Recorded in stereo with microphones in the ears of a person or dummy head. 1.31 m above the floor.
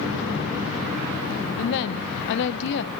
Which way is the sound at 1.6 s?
60° left (ahead or behind).